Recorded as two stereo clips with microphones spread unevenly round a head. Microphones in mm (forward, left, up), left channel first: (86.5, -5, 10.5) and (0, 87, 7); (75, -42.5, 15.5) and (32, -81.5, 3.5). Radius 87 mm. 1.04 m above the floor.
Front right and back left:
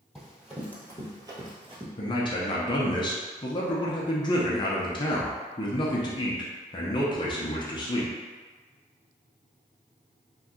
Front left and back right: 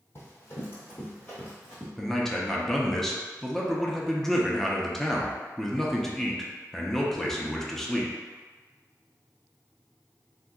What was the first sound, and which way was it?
Running footsteps, 40° left.